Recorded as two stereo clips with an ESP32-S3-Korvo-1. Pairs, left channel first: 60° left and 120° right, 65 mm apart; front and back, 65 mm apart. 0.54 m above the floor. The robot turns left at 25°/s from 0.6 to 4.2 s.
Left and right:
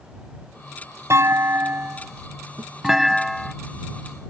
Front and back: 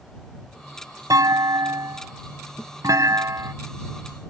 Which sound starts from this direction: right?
A thud, at 2.6 s.